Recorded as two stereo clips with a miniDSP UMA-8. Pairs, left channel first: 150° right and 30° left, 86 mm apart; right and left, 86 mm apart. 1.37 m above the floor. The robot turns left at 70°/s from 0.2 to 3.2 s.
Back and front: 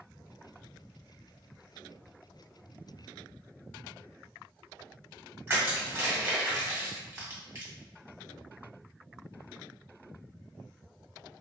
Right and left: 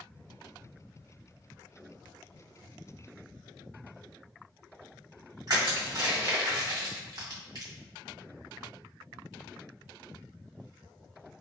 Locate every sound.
5.5 s crushing: 80° left, 1.6 m